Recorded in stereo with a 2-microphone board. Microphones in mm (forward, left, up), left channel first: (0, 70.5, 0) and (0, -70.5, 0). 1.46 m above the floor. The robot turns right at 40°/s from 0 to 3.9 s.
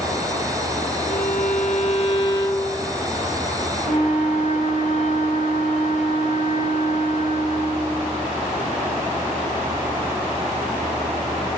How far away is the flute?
About 4 m.